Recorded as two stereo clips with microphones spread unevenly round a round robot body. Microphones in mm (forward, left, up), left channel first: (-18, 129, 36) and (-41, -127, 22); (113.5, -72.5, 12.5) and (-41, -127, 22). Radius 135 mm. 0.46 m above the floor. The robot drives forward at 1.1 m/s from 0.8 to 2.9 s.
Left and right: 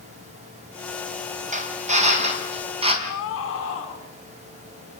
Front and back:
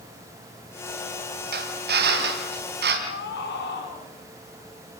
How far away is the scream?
About 5.5 m.